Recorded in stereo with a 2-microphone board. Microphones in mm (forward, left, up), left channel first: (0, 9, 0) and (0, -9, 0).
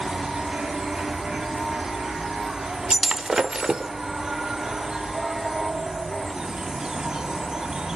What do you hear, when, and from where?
0.0 s an insect: 45° right (ahead or behind), 1.4 m
2.9 s breaking glass: 45° right (ahead or behind), 1.1 m